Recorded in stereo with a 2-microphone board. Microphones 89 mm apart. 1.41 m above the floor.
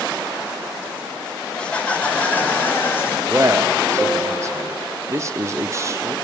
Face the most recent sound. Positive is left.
turn(degrees=-35)  # may be behind; listen again after turning